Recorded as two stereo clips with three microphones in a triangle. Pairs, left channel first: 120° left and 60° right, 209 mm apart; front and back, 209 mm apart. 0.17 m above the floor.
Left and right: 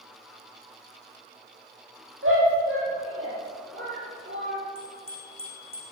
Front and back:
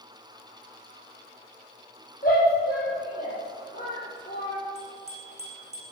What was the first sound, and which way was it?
A shout, 55° right.